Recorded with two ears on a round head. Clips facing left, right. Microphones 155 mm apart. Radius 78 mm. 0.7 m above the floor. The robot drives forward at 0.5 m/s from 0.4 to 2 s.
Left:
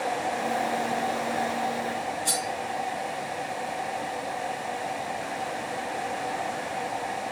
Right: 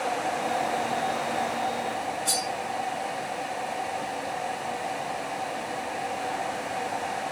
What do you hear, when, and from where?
2.2 s cutlery clinking: 20° left (ahead or behind), 1.7 m